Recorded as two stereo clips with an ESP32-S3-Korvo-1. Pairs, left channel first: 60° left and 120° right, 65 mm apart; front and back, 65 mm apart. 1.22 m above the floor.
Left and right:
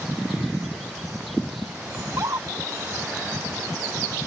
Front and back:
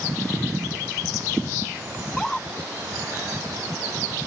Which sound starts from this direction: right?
A scream, at 2.0 s.